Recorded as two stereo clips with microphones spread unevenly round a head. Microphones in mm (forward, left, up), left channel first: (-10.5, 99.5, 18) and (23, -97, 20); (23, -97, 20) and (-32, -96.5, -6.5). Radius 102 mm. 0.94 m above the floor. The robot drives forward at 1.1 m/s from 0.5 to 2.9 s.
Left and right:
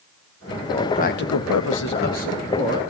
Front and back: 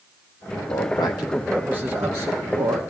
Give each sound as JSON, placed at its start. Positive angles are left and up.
{"t": 0.7, "sound": "a man speaking", "azimuth_deg": 35, "distance_m": 1.0}